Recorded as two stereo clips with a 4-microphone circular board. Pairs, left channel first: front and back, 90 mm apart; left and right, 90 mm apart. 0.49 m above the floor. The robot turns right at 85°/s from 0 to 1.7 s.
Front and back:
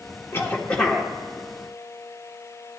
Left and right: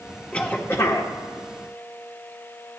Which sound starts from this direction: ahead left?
A cough, at 0.3 s.